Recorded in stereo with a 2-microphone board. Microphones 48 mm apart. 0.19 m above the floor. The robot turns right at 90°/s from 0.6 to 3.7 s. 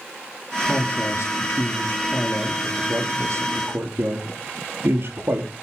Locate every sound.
0.7 s a man speaking: 20° left, 4.5 m; by 5.5 s 65° right, 4.5 m